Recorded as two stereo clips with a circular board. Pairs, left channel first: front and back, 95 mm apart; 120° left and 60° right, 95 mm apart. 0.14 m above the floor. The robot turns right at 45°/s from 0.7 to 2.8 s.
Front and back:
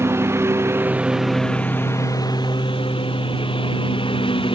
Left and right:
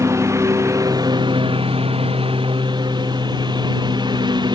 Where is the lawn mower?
115° right; by 4.5 s 25° right.